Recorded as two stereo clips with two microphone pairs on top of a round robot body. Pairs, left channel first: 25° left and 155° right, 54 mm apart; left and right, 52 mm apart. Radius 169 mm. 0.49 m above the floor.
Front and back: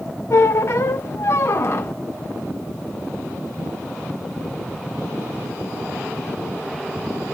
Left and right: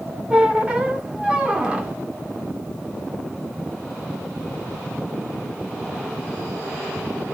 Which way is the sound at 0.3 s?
20° right.